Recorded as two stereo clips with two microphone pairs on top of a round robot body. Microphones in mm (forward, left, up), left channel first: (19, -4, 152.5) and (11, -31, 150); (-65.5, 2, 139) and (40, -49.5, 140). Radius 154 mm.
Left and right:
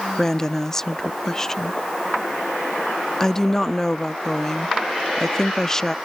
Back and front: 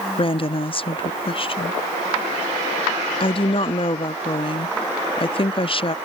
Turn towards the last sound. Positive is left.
turn(degrees=150)